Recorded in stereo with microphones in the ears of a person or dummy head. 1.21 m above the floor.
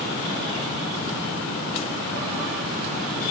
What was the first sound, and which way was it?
Only background noise.